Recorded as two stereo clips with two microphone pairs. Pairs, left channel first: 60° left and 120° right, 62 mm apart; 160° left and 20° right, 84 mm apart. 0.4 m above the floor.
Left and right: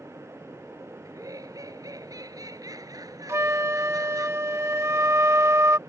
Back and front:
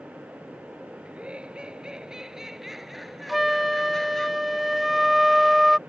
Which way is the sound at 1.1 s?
100° right.